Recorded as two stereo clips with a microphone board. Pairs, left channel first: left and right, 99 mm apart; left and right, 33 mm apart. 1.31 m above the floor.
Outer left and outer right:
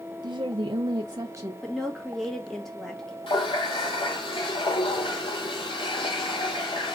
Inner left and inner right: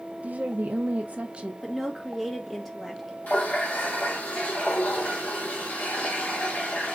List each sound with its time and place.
0.2 s a woman speaking: 50° right (ahead or behind), 0.6 m; by 1.5 s 40° right (ahead or behind), 0.8 m
1.6 s a woman speaking: 5° left (ahead or behind), 1.6 m
3.3 s a running tap: 65° left (ahead or behind), 2 m